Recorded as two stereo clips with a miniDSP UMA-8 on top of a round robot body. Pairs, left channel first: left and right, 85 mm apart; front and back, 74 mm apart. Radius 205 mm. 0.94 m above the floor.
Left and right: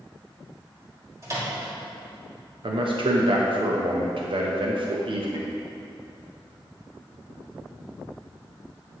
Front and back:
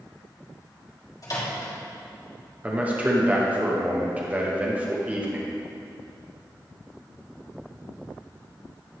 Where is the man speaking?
110° right, 1.0 m.